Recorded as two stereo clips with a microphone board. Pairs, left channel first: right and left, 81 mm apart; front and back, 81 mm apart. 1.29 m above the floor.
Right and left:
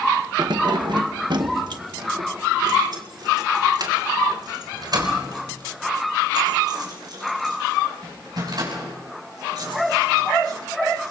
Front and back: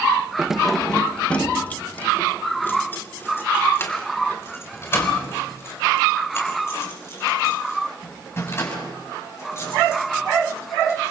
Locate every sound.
0.4 s keys jangling: 105° left, 0.6 m; by 11.1 s 55° left, 8.5 m